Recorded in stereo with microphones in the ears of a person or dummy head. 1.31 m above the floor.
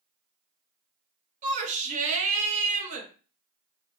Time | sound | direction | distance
1.4 | a shout | 30° right (ahead or behind) | 0.9 m